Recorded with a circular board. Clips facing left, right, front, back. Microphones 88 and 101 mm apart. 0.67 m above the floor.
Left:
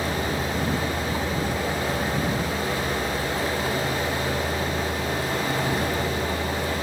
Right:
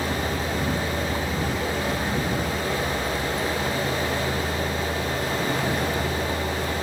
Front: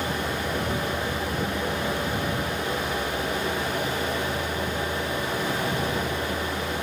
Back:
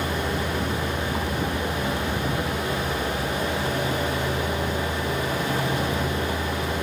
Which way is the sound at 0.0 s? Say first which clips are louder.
Even, back 2 dB; 175° left.